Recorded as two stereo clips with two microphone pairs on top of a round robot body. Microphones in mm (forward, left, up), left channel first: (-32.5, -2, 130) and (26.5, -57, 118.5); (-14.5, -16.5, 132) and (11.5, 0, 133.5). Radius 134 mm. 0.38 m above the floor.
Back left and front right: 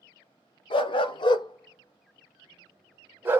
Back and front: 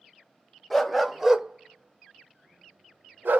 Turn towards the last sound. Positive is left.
turn(degrees=20)